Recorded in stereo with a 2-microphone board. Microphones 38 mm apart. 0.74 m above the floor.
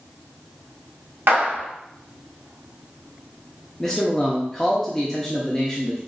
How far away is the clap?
About 1.1 m.